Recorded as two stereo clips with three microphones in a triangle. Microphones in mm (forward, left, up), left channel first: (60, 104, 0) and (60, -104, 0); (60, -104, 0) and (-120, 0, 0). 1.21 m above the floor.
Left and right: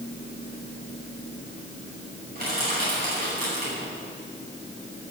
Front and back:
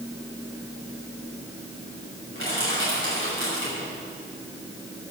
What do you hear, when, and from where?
2.4 s crushing: 45° right, 6.5 m